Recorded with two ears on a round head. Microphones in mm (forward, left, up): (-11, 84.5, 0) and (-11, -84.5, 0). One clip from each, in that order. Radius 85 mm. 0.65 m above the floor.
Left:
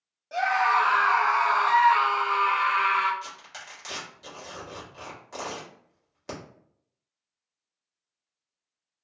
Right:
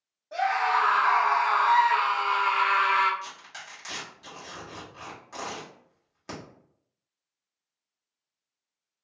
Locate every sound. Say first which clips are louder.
0.3 s a scream: left 2 dB; 55° left (ahead or behind), 1.2 m; by 3.1 s 40° right (ahead or behind), 1.0 m
3.2 s tearing paper: even; 10° left (ahead or behind), 1.3 m